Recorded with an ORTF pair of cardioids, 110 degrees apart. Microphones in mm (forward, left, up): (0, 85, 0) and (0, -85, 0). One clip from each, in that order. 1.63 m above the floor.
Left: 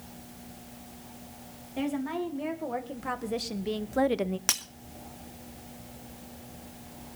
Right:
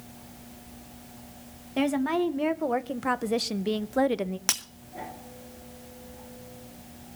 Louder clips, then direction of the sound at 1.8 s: Right 6 dB; 50° right.